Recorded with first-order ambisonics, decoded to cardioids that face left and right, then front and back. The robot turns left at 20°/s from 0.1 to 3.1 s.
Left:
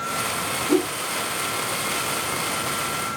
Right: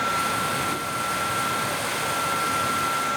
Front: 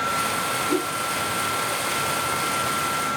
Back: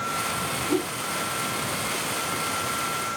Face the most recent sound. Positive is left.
turn(degrees=45)